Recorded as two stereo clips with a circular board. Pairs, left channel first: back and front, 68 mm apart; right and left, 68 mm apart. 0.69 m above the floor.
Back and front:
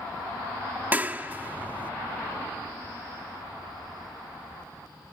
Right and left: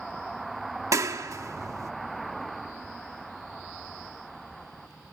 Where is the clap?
60° left, 1.0 m.